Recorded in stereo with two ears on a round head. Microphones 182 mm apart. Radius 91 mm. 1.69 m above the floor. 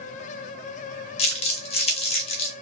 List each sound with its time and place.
1.2 s crumpling: 30° left (ahead or behind), 0.7 m